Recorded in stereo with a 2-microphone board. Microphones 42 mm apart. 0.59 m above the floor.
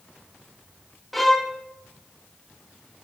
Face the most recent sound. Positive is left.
turn(degrees=0)  # may be behind; listen again after turning